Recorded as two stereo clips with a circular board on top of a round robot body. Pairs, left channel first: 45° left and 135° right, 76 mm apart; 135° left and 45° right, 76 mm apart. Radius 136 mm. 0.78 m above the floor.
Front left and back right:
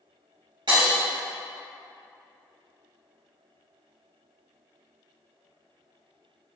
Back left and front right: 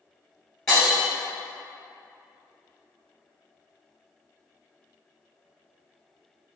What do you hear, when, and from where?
0.7 s breaking glass: 140° right, 1.8 m